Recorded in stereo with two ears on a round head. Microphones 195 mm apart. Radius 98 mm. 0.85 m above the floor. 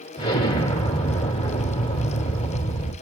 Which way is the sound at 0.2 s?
25° left (ahead or behind).